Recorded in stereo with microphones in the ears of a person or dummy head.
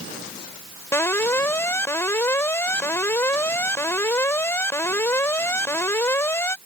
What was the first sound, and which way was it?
An alarm, 15° left (ahead or behind).